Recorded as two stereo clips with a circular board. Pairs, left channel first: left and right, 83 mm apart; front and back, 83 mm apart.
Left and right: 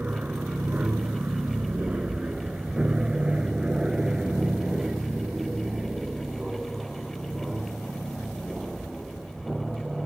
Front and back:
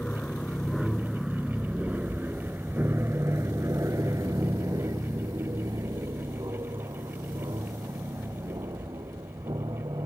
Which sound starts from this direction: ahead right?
An aircraft, at 0.0 s.